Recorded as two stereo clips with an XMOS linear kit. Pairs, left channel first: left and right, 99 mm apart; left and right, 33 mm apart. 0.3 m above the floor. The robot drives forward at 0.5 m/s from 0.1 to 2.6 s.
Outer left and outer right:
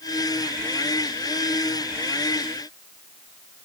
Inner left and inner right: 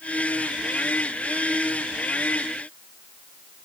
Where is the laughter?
I don't hear laughter.